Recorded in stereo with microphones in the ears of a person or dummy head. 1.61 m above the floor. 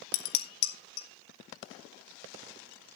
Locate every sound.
0.1 s dishes clattering: 70° left (ahead or behind), 1.9 m